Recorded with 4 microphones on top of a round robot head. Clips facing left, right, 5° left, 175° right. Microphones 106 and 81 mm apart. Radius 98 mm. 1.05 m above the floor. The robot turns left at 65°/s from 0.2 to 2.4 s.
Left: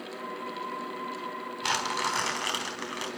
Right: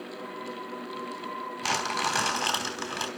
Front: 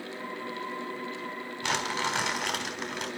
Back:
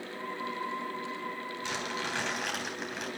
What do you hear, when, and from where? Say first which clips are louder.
1.6 s crumpling: right 1 dB, front 7 dB; 35° right, 3.5 m; by 3.1 s 85° right, 3.5 m